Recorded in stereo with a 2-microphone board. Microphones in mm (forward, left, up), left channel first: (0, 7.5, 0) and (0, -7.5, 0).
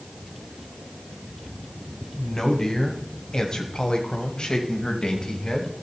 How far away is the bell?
No bell in this recording.